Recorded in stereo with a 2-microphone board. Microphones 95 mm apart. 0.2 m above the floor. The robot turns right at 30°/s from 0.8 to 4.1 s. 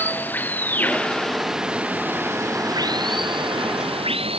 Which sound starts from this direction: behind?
Running water, at 0.0 s.